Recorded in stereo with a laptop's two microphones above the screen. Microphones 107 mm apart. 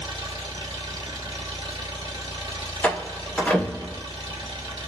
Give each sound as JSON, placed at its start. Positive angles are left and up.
{"t": 0.0, "sound": "an engine running", "side_deg": -45, "distance_m": 2.0}
{"t": 2.8, "sound": "a door slam", "side_deg": 15, "distance_m": 1.5}